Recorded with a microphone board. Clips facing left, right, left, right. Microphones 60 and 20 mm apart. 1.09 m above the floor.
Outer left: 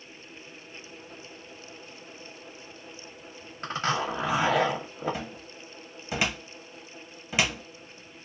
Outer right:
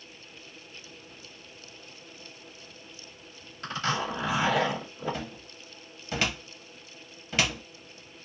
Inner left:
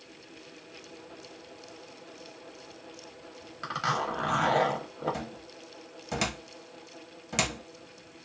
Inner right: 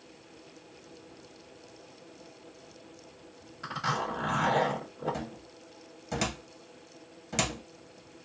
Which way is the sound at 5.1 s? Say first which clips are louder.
Outer left 1 dB, inner left 1 dB; 10° left (ahead or behind).